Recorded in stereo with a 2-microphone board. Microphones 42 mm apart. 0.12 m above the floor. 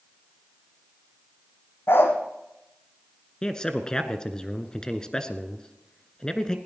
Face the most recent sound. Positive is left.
turn(degrees=20)  # may be behind; listen again after turning